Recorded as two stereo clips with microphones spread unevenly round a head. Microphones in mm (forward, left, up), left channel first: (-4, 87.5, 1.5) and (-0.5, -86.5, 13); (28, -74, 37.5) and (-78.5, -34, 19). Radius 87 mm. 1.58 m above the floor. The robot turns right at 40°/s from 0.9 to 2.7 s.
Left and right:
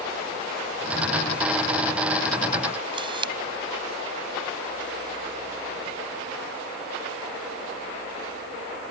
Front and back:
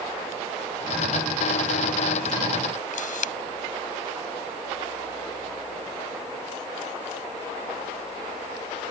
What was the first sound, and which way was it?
A camera shutter, 25° right.